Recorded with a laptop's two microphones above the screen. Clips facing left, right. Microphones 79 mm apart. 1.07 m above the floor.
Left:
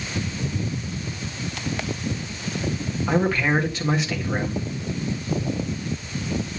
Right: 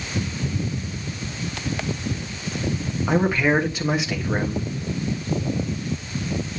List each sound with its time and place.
3.1 s a man speaking: 10° right (ahead or behind), 1.5 m